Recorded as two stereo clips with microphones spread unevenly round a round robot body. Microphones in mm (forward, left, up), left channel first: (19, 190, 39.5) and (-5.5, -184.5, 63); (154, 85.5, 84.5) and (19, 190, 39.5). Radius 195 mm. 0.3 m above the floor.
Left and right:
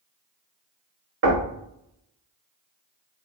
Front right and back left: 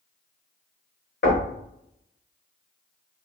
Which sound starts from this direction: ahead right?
Knocking, at 1.2 s.